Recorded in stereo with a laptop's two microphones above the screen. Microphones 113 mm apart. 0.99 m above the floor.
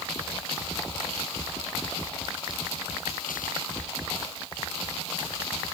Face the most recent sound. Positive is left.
No sound to turn to.